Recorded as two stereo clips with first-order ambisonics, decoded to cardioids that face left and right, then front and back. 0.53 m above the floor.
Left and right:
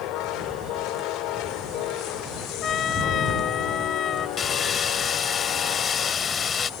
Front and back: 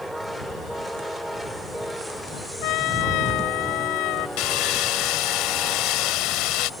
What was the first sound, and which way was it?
A trumpet, 30° left.